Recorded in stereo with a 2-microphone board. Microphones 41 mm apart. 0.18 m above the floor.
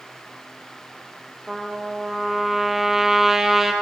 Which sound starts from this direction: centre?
A trumpet, at 1.5 s.